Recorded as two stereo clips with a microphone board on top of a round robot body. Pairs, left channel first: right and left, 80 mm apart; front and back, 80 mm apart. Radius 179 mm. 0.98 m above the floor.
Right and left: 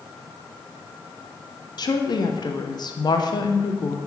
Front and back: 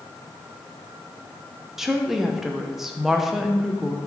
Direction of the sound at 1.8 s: 95° right.